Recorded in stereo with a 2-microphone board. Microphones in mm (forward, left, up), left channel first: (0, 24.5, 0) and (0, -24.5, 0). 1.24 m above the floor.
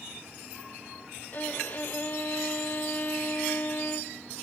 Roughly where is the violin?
Left.